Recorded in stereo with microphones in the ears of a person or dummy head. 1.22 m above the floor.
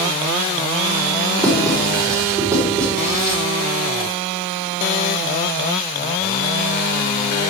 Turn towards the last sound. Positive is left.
turn(degrees=-10)  # may be behind; listen again after turning